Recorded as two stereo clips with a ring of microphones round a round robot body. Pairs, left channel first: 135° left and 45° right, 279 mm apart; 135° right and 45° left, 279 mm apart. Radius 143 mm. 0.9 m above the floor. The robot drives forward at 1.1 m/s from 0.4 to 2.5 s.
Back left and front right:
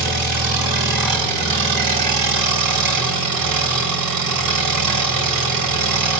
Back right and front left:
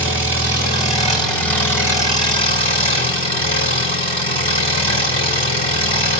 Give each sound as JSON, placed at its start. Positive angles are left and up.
{"t": 0.0, "sound": "an engine running", "azimuth_deg": -40, "distance_m": 5.0}